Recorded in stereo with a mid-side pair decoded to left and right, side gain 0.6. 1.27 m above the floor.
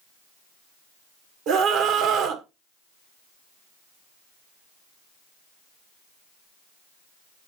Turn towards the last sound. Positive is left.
turn(degrees=-70)